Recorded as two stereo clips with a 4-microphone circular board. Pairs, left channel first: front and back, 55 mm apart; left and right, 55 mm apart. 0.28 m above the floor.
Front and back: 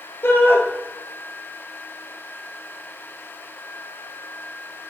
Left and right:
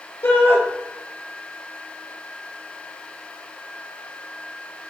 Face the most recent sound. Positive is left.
turn(degrees=50)